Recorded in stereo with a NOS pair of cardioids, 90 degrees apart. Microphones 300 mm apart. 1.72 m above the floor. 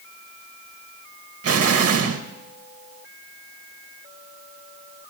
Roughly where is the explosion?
Ahead right.